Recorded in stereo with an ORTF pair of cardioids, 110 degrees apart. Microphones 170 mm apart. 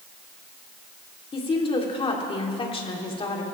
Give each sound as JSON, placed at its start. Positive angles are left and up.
{"t": 1.3, "sound": "a woman speaking", "azimuth_deg": 30, "distance_m": 3.5}